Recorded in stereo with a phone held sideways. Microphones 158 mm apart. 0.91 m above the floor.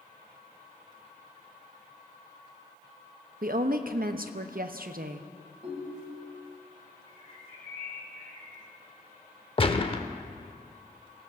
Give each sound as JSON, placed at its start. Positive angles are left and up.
{"t": 3.4, "sound": "a woman speaking", "side_deg": -65, "distance_m": 0.7}
{"t": 5.6, "sound": "a ringtone", "side_deg": -40, "distance_m": 2.5}
{"t": 7.1, "sound": "a bird", "side_deg": 55, "distance_m": 3.5}
{"t": 9.6, "sound": "a gunshot", "side_deg": 35, "distance_m": 0.6}